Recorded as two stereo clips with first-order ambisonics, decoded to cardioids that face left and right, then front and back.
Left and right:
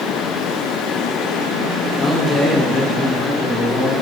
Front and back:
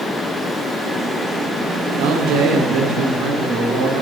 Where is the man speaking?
165° left, 2 m.